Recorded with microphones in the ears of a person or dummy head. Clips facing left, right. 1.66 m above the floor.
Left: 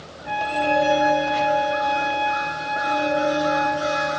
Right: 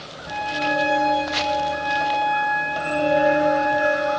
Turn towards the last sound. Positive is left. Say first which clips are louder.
# left 3 dB
turn(degrees=75)  # may be behind; listen again after turning